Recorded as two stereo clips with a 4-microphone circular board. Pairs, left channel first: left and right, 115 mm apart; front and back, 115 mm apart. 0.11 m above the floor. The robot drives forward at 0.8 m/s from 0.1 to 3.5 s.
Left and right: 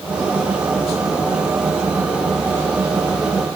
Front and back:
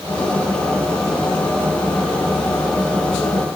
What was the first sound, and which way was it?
Only background noise.